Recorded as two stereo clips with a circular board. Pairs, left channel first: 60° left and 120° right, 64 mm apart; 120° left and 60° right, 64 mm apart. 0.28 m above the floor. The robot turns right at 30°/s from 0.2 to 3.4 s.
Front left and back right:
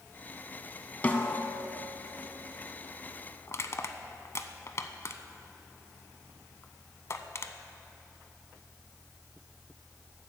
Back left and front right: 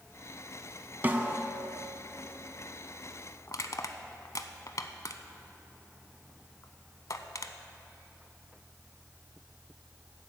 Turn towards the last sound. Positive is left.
turn(degrees=95)